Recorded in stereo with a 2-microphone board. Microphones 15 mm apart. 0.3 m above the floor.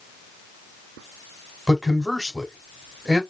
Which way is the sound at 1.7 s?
10° left (ahead or behind).